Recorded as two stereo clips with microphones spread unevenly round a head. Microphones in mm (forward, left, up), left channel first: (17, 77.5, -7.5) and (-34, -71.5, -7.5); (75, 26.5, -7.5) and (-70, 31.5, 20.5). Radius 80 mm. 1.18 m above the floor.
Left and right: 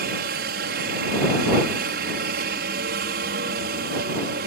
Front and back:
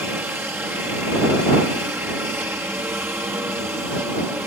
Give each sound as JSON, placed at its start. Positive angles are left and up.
{"t": 0.0, "sound": "a helicopter", "azimuth_deg": -100}